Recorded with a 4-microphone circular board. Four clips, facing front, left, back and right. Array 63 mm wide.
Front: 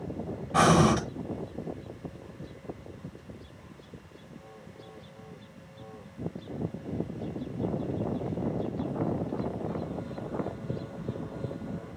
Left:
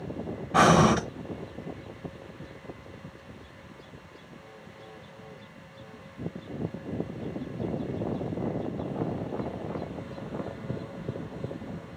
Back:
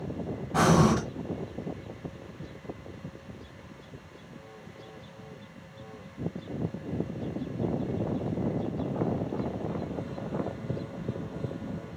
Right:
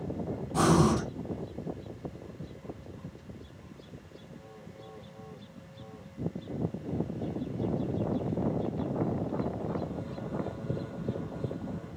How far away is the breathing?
About 0.9 m.